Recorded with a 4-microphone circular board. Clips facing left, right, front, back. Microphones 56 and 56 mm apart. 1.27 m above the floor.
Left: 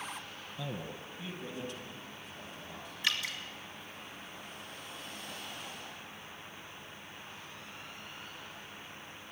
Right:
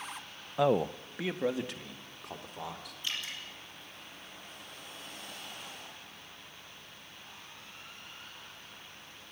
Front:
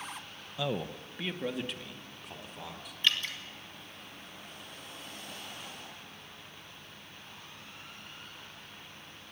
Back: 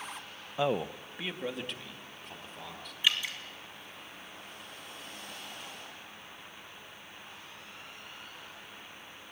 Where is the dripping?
100° left, 3 m.